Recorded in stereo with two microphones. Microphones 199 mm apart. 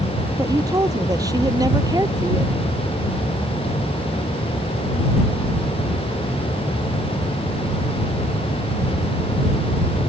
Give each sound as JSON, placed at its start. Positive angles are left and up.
{"t": 0.4, "sound": "a woman speaking", "side_deg": -20}